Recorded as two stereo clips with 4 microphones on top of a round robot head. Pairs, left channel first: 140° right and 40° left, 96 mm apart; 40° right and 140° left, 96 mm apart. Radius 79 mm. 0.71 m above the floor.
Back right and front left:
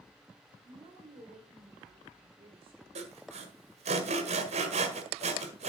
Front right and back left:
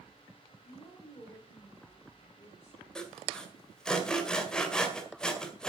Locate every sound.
0.6 s a woman speaking: 25° left, 3.5 m
3.0 s sawing: 40° left, 1.8 m